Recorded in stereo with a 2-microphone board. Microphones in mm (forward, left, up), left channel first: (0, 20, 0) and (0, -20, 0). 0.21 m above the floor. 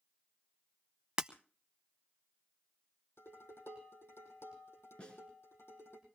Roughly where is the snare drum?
Left.